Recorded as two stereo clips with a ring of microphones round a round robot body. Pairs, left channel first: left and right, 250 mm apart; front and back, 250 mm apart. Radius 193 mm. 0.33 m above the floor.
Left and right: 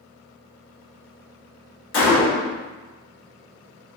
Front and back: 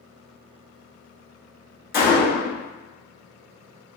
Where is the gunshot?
55° left, 1.1 m.